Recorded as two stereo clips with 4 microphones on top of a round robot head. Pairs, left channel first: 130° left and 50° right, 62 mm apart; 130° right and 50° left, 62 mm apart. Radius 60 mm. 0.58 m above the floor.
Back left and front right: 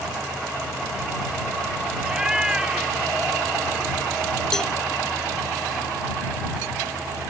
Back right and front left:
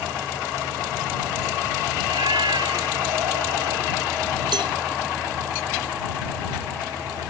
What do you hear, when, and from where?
2.0 s a cat meowing: 35° left; by 3.8 s 25° left
4.5 s a cowbell: 50° left